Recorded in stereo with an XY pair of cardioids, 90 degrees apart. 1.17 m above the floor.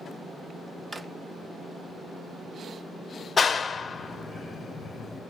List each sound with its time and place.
0.9 s a drawer: 25° right, 0.6 m
3.4 s a clap: 40° left, 0.5 m